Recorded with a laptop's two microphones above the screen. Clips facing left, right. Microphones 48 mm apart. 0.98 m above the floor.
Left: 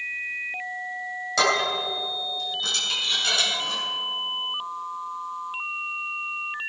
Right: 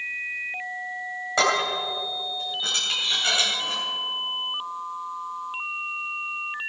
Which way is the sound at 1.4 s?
20° right (ahead or behind).